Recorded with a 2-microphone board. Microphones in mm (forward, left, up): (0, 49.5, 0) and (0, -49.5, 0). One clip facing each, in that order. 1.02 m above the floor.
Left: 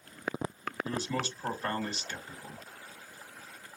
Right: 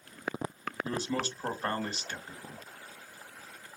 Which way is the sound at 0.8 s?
45° right (ahead or behind).